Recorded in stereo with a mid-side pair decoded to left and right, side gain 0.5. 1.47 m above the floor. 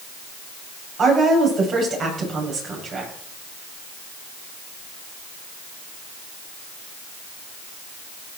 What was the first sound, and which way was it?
A woman speaking, 50° right.